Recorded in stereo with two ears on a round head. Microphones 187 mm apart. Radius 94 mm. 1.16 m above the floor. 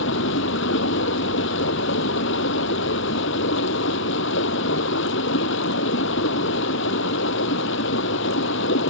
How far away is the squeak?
No squeak in this recording.